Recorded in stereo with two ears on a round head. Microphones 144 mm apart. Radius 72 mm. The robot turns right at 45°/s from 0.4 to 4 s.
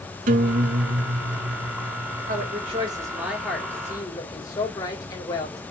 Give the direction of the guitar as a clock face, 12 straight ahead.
4 o'clock.